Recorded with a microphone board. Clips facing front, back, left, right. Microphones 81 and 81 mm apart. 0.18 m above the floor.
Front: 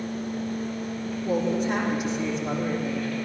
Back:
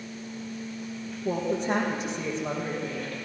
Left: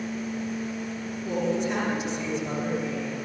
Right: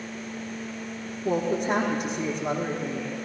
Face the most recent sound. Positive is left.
turn(degrees=-135)